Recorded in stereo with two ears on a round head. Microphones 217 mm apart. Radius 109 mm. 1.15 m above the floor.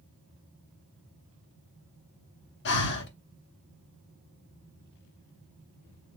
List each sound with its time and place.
2.6 s breathing: 45° left (ahead or behind), 0.9 m